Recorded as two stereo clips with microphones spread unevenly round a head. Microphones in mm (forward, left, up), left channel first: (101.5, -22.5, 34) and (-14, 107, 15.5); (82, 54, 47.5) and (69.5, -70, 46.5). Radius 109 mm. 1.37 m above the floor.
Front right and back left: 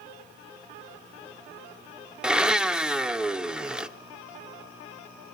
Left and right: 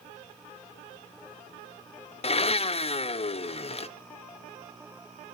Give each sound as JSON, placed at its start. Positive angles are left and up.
{"t": 2.2, "sound": "a blender", "azimuth_deg": 50, "distance_m": 0.9}